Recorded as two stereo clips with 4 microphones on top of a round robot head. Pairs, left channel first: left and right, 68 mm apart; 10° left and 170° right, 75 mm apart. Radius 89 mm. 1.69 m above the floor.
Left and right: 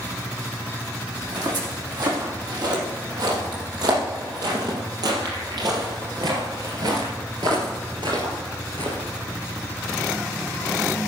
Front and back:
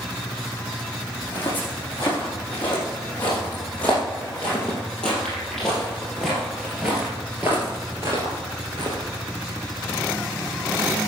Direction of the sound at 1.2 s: 65° right.